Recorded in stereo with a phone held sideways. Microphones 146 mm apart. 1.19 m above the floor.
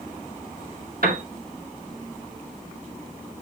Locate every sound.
1.0 s a piano: 80° right, 2 m